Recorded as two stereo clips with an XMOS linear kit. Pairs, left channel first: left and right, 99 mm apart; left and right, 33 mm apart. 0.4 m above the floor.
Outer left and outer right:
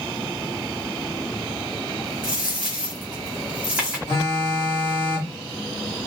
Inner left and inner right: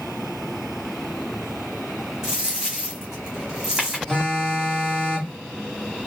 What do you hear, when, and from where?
2.2 s a dropped coin: 15° right (ahead or behind), 1.7 m
4.1 s a phone buzzing: 25° left (ahead or behind), 1.3 m